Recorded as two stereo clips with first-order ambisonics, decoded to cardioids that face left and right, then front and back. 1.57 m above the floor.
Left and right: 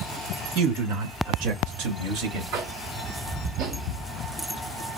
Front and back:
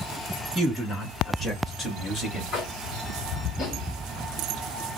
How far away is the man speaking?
About 1.8 m.